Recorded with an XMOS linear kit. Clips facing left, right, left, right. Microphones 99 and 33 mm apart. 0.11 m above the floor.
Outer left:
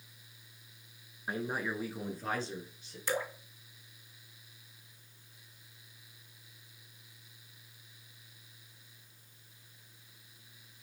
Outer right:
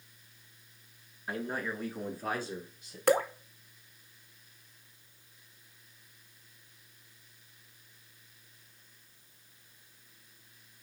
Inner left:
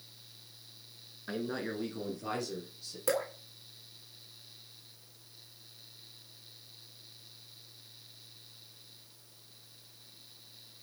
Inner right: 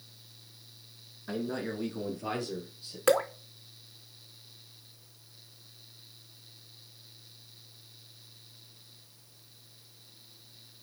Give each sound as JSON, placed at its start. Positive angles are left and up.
{"t": 1.3, "sound": "a man speaking", "side_deg": 20, "distance_m": 1.3}
{"t": 3.1, "sound": "dripping", "side_deg": -75, "distance_m": 0.7}